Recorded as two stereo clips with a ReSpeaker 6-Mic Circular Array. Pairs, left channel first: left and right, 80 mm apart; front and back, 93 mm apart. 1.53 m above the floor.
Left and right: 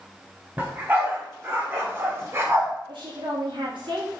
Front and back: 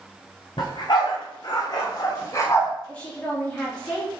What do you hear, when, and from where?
0.6 s a dog barking: 25° right, 2.5 m; by 2.7 s 50° right, 1.7 m
2.9 s a woman speaking: 75° right, 3 m